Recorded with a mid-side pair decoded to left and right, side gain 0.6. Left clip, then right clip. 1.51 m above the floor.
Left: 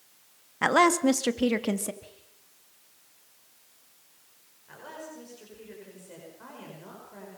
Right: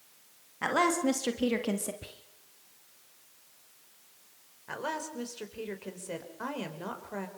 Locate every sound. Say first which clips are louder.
0.6 s a woman speaking: left 6 dB; 40° left, 1.9 m; by 1.9 s 15° left, 2.5 m
2.0 s whispering: right 3 dB; 45° right, 1.0 m
4.7 s a woman speaking: right 7 dB; 55° right, 5 m